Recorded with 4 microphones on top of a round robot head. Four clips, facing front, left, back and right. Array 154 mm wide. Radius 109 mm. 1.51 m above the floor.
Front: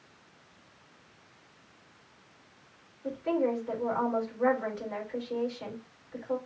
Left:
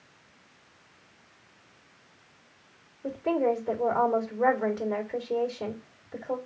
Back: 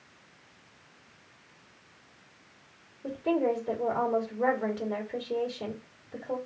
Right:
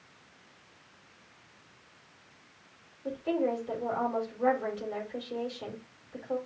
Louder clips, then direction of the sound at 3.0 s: Left 4 dB, back 1 dB; 125° left.